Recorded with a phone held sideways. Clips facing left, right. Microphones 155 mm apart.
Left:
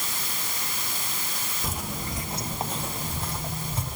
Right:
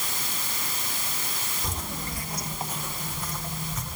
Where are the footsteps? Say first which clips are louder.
Left 2 dB; 5° left (ahead or behind), 1.2 m; by 4.0 s 30° left (ahead or behind), 3 m.